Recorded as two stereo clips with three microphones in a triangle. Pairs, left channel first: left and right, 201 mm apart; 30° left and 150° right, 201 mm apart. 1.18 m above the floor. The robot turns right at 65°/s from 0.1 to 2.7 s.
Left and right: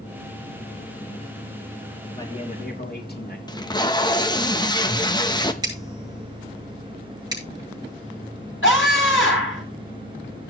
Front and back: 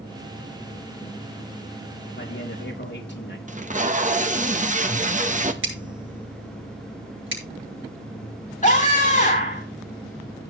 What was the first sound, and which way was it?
A man speaking, 20° left.